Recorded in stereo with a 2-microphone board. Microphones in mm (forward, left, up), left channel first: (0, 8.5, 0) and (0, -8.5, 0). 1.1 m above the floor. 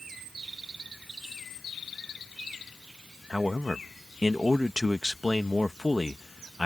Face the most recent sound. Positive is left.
turn(degrees=-30)  # may be behind; listen again after turning